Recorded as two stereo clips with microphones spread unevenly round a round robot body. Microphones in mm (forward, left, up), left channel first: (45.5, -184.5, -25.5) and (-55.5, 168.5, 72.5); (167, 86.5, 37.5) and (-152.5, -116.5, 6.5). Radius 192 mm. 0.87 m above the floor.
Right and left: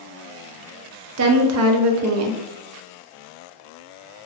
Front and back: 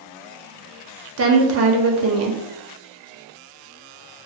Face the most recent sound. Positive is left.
turn(degrees=165)